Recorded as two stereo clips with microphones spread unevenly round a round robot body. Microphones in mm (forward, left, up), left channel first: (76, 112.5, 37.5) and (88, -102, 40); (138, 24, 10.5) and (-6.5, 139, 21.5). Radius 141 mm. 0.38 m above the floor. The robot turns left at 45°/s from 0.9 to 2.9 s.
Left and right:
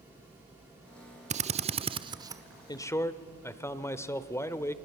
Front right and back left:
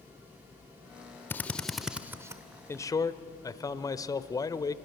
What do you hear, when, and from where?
1.3 s a drill: 100° right, 0.7 m; by 2.4 s 150° right, 0.7 m
2.7 s a man speaking: 30° left, 1.2 m; by 4.8 s 20° left, 1.2 m